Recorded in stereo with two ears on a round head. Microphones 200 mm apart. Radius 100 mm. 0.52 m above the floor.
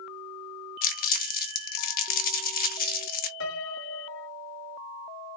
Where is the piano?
55° left (ahead or behind), 0.7 m.